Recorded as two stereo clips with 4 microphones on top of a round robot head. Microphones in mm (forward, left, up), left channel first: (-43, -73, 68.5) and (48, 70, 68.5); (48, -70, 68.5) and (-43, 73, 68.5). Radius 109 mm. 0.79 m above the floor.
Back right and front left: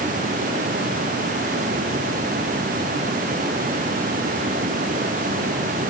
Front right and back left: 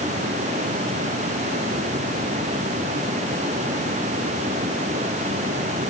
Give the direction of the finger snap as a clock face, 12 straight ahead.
No finger snap in this recording.